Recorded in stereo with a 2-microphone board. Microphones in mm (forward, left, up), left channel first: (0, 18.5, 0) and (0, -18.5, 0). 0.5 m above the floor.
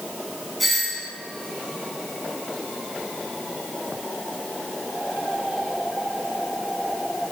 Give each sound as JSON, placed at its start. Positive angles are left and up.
{"t": 0.6, "sound": "a doorbell", "side_deg": 0, "distance_m": 6.0}